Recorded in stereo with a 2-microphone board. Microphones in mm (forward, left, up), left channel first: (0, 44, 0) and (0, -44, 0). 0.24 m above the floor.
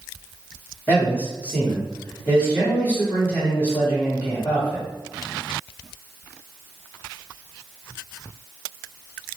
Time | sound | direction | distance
0.9 | a man speaking | 20° left (ahead or behind) | 1.4 m